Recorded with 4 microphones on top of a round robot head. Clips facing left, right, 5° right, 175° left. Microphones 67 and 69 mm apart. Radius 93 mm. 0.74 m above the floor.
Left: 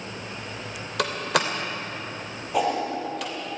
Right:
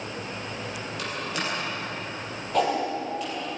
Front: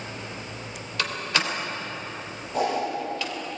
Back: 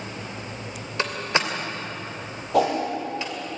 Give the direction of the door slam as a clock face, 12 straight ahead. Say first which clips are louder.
Left 8 dB, back 2 dB; 8 o'clock.